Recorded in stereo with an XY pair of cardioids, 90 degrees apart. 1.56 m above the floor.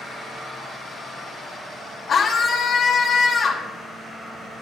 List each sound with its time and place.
2.1 s a scream: 70° left, 1.9 m